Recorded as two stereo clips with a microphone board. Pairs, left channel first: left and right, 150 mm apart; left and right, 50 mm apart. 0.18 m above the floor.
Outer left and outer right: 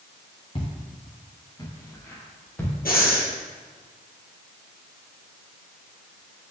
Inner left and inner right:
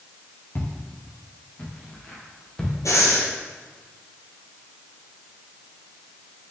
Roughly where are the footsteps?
Left.